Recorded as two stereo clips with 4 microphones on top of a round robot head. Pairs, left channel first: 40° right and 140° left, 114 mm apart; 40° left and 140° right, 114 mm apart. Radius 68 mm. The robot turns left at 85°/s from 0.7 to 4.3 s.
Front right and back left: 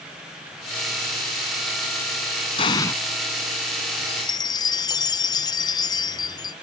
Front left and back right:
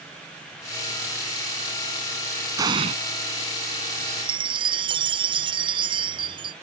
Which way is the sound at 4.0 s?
65° right.